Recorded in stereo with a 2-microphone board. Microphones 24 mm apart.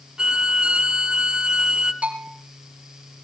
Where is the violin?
40° right (ahead or behind), 1.7 m.